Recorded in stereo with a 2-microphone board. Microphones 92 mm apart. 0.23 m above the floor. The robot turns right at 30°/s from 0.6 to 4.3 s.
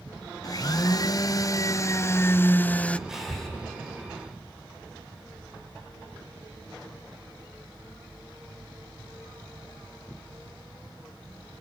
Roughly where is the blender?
Left.